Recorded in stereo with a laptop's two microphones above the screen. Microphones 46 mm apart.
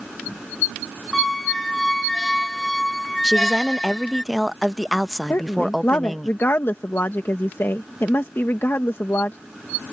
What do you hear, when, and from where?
1.1 s a squeak: 5° left (ahead or behind)
3.2 s a woman speaking: centre (ahead or behind)
5.3 s a woman speaking: 55° left (ahead or behind)